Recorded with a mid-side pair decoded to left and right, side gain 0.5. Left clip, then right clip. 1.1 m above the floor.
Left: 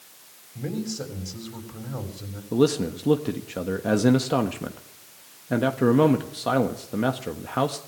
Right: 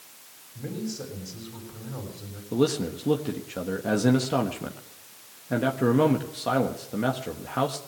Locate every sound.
0.6 s a man speaking: 35° left, 7 m
2.5 s a man speaking: 20° left, 1.5 m